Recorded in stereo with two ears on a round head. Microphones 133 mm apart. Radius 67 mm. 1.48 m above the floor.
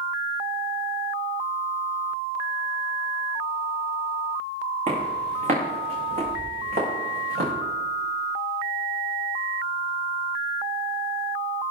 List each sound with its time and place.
4.9 s footsteps: 50° right (ahead or behind), 7.5 m; by 7.5 s 65° right (ahead or behind), 9 m